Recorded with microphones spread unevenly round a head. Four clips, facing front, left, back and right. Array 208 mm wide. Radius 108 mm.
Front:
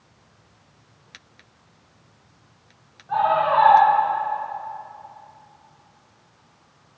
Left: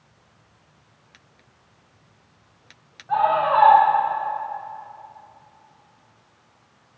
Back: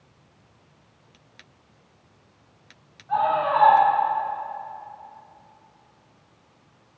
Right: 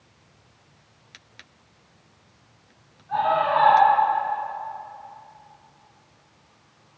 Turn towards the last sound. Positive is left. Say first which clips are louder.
# left 2 dB, front 2 dB
turn(degrees=55)